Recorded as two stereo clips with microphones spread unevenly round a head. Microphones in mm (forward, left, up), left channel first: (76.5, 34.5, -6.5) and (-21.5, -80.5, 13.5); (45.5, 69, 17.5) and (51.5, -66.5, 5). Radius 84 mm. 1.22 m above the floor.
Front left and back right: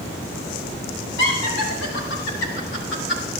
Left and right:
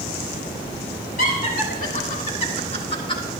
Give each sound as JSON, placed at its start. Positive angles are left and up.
{"t": 1.2, "sound": "laughter", "azimuth_deg": 75, "distance_m": 4.0}